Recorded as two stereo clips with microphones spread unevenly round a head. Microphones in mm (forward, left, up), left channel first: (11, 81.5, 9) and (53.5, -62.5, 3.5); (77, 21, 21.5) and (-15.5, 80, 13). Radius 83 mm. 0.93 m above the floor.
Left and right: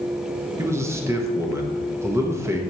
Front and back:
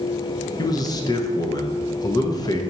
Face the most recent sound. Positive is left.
turn(degrees=-25)